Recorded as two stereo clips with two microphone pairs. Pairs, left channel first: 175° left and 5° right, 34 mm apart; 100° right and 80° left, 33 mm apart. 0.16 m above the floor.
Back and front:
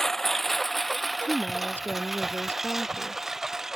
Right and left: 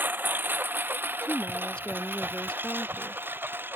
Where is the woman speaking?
155° right.